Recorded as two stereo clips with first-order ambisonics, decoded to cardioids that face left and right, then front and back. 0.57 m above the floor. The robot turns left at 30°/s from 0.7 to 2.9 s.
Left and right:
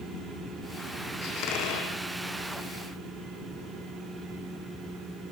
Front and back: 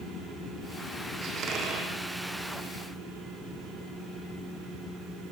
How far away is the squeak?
About 4.5 m.